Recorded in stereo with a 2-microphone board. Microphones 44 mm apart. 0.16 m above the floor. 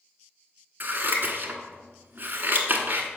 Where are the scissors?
45° right (ahead or behind), 1.1 m.